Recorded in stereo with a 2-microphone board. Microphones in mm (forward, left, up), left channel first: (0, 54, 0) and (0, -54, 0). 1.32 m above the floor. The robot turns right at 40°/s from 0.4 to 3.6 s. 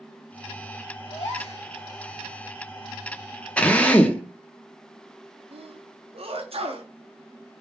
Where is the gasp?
55° left (ahead or behind), 2.5 m; by 1.6 s 75° left (ahead or behind), 2.5 m.